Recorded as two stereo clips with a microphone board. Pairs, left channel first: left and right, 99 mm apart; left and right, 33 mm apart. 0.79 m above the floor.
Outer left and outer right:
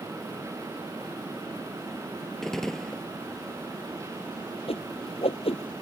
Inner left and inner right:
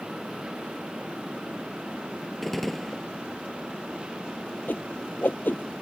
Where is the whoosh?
80° left.